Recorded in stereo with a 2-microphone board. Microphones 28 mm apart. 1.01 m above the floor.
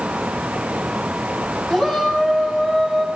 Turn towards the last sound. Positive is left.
turn(degrees=20)  # may be behind; listen again after turning